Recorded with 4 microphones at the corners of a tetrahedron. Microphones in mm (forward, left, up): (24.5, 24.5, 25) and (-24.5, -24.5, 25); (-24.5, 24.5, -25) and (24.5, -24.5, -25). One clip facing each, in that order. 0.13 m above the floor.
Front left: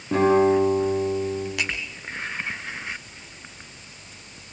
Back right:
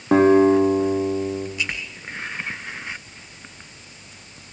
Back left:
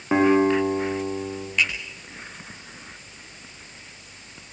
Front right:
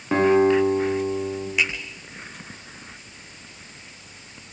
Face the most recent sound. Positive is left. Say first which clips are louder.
# even, back left 1 dB
turn(degrees=35)